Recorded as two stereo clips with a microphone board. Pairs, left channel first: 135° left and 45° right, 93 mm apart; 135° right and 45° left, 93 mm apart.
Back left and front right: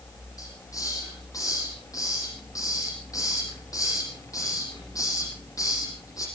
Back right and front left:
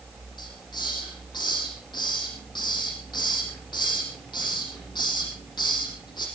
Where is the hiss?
170° right, 7.5 m.